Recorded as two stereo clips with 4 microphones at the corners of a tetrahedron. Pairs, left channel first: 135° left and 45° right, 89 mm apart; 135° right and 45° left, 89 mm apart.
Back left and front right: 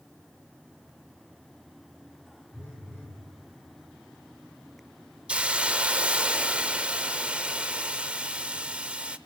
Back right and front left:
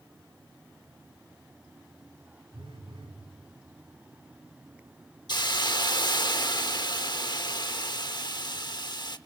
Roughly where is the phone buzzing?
Ahead left.